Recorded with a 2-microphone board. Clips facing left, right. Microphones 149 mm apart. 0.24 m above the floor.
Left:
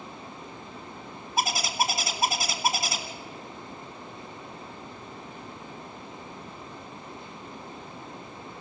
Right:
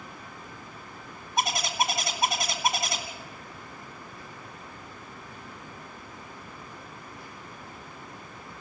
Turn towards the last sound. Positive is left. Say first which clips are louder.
# even
turn(degrees=5)  # may be behind; listen again after turning